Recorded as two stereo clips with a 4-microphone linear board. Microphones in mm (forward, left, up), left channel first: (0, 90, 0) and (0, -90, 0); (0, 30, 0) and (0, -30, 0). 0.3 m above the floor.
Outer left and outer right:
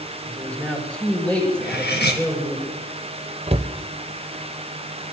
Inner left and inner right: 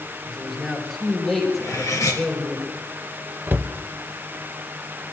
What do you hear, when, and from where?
0.3 s a man speaking: 5° left (ahead or behind), 4.5 m
1.6 s cutlery clinking: 75° left (ahead or behind), 2.5 m
3.5 s a cupboard door: 35° right (ahead or behind), 0.7 m